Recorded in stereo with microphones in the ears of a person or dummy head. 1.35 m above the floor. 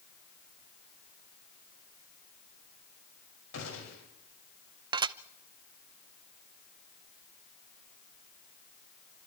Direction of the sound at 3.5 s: 80° left.